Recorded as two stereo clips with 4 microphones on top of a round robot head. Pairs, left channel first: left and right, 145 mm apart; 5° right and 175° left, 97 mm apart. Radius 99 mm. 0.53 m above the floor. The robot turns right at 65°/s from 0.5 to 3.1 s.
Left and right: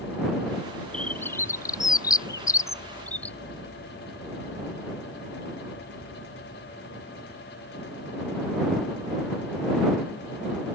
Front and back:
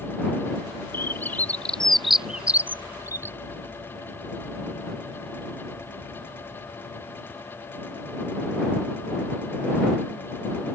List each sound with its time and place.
0.9 s a bird: 15° left; by 3.4 s 155° left